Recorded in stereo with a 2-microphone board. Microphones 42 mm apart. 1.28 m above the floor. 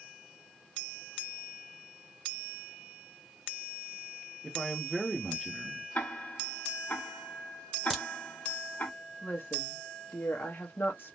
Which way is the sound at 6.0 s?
50° left (ahead or behind).